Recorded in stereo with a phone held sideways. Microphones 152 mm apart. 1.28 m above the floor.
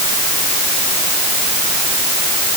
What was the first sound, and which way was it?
Only background noise.